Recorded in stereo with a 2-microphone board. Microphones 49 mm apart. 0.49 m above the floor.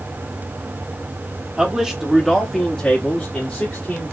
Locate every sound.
1.6 s a man speaking: 20° right (ahead or behind), 1.1 m; by 4.1 s 40° left (ahead or behind), 1.6 m